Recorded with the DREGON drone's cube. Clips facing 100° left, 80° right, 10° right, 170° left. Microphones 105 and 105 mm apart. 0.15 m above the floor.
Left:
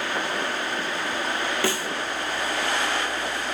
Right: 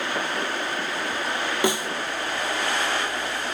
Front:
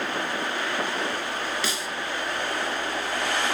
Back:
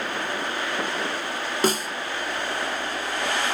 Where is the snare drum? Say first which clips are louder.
Right 6 dB, back 8 dB; 150° right, 0.8 m.